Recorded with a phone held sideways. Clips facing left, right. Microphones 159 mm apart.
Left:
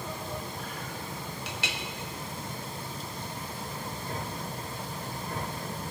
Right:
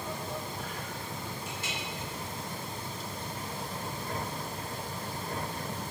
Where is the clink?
75° left (ahead or behind), 1.1 m.